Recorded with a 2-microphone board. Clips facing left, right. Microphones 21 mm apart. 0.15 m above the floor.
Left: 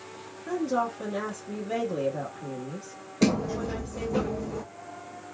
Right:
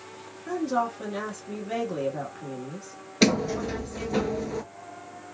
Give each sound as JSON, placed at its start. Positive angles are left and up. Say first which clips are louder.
{"t": 0.5, "sound": "a woman speaking", "louder": "right 1 dB", "side_deg": -20, "distance_m": 1.1}
{"t": 3.2, "sound": "a sliding door", "louder": "right 3 dB", "side_deg": -60, "distance_m": 0.5}